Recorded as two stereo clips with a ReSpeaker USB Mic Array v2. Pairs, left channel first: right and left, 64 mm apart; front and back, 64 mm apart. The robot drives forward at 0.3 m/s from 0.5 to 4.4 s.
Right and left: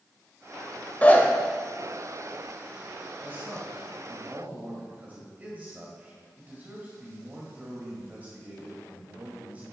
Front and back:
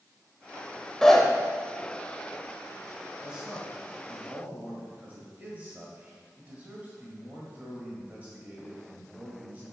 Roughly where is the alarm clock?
I don't hear an alarm clock.